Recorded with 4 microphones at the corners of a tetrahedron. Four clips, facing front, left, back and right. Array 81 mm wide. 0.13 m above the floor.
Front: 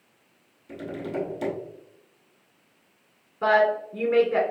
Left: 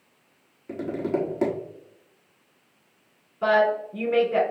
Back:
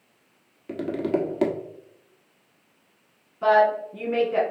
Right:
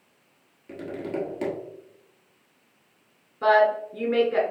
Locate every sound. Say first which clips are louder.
0.7 s tapping: left 5 dB, back 7 dB; 165° left, 1.3 m
3.4 s a woman speaking: right 1 dB, back 2 dB; 30° right, 1.6 m